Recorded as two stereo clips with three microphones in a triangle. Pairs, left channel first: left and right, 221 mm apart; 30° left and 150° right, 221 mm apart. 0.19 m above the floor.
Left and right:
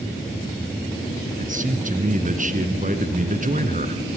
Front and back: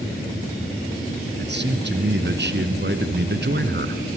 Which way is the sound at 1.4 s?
135° right.